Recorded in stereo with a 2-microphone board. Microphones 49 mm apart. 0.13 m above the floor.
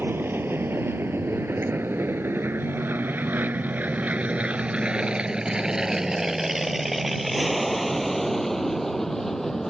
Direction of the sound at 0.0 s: 50° right (ahead or behind).